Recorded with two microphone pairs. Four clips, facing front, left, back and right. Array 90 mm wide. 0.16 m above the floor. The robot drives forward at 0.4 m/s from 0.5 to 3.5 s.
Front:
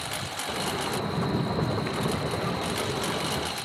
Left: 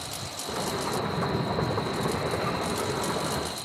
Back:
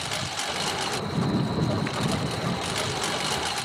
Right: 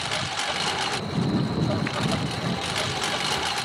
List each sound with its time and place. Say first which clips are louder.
0.0 s a lawn mower: right 8 dB, back 2 dB; 95° right; by 3.6 s 110° right